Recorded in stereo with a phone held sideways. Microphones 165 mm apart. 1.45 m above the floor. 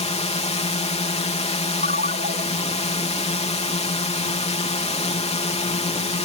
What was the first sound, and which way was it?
A drone, 40° left (ahead or behind).